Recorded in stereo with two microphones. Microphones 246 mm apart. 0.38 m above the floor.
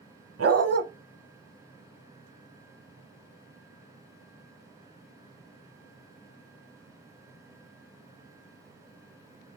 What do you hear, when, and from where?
0.4 s a dog barking: 80° right, 0.7 m